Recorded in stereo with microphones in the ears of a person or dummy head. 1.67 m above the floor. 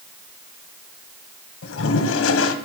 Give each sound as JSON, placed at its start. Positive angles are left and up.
{"t": 1.6, "sound": "a toilet flushing", "side_deg": 85, "distance_m": 1.4}